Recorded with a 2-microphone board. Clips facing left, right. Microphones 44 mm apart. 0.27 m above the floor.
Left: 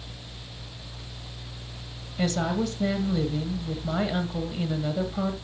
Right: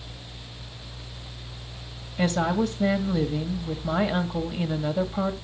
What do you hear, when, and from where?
2.2 s a woman speaking: 20° right (ahead or behind), 1.6 m